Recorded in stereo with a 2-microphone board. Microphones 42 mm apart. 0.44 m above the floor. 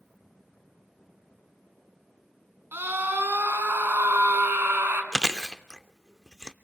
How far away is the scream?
About 4 m.